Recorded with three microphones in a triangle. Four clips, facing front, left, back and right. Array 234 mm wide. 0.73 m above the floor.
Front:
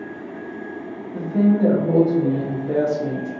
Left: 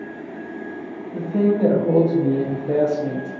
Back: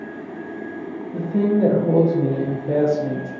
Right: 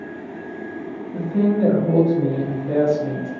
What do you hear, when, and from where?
1.1 s a woman speaking: 145° left, 0.7 m